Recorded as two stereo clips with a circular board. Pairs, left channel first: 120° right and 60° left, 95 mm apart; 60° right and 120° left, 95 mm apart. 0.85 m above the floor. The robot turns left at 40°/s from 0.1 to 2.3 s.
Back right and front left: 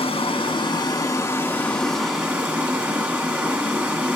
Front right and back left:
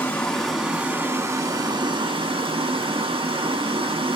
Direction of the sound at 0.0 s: 135° right.